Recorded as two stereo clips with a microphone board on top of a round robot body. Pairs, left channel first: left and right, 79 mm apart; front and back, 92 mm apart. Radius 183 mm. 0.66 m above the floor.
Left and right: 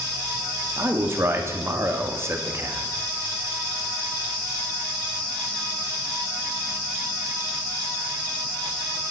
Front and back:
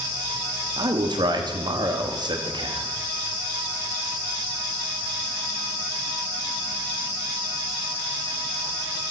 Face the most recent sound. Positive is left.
turn(degrees=-145)